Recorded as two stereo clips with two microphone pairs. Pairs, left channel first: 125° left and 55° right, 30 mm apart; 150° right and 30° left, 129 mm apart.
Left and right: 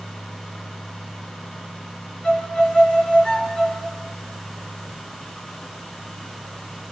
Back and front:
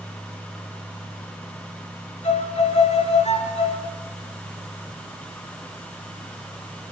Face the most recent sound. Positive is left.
turn(degrees=-175)